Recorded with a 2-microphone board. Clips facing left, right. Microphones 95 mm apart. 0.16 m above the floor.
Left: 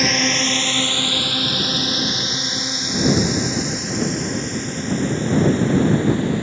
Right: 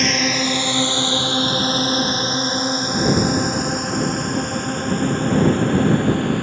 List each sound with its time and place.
0.0 s a drone: centre (ahead or behind); by 6.4 s 55° right (ahead or behind)